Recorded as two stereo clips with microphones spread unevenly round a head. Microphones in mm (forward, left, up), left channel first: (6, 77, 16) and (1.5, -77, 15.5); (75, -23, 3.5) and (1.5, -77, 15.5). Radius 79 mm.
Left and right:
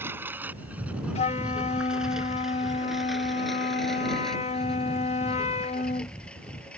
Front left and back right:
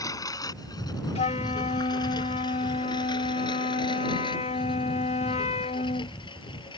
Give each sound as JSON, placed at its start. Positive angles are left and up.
{"t": 0.0, "sound": "a lawn mower", "azimuth_deg": -15}
{"t": 1.1, "sound": "a flute", "azimuth_deg": 40}